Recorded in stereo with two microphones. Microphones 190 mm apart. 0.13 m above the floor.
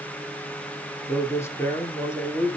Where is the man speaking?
15° left (ahead or behind), 2.5 m.